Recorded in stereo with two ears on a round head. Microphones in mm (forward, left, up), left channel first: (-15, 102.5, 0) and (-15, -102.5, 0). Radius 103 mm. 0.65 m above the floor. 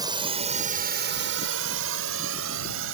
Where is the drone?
20° right (ahead or behind); by 2.9 s 60° right (ahead or behind).